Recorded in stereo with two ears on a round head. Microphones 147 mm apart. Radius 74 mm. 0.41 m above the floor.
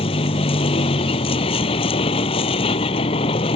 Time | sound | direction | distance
0.0 | a vehicle | 35° left (ahead or behind) | ?